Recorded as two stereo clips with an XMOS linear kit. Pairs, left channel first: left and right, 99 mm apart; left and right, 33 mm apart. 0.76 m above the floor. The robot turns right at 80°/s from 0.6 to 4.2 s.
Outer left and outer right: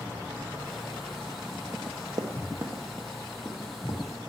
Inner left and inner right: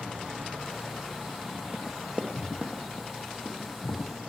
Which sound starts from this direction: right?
Running footsteps, at 1.7 s.